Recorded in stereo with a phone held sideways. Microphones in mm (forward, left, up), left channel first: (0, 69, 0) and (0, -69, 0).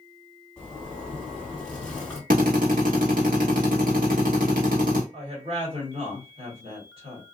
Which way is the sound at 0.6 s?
5° left (ahead or behind).